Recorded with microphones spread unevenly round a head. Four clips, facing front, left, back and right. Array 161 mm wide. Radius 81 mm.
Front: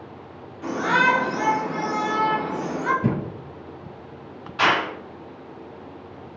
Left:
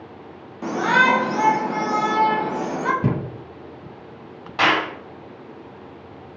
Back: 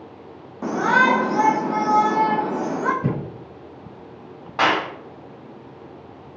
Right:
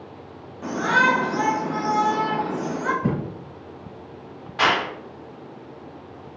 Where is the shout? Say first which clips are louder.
Left 2 dB, back 3 dB; 160° left, 1.0 m.